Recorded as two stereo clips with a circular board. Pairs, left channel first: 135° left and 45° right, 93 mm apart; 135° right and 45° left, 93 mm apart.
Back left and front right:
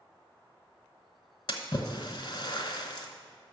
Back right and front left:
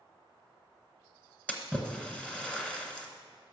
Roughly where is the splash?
Behind left.